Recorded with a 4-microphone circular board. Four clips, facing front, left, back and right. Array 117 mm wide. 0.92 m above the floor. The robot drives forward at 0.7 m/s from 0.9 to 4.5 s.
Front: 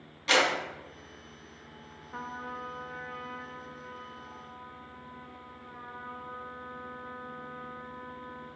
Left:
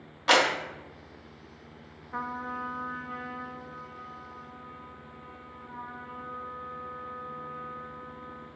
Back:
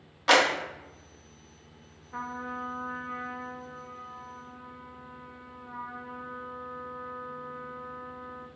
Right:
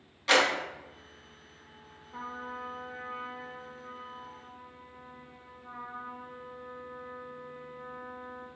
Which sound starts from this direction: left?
A trumpet, at 2.1 s.